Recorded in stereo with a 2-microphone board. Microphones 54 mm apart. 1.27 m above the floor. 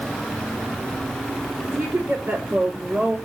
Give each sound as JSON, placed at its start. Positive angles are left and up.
{"t": 1.7, "sound": "a woman speaking", "side_deg": -55, "distance_m": 3.0}